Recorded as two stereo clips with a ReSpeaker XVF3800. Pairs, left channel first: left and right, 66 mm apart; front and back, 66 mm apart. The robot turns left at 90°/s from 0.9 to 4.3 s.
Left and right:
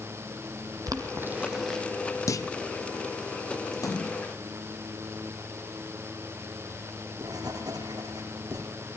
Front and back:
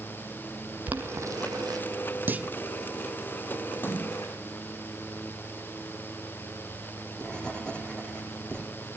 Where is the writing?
75° right, 6 m.